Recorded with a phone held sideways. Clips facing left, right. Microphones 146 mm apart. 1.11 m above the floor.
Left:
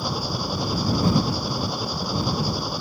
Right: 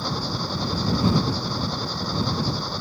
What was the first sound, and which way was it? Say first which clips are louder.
An engine running: left 1 dB; 10° left (ahead or behind).